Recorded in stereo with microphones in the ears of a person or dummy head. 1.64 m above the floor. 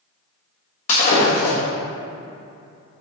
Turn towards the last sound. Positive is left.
turn(degrees=50)  # may be behind; listen again after turning